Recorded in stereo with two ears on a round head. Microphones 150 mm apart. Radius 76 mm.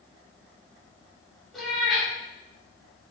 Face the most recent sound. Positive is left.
turn(degrees=0)  # may be behind; listen again after turning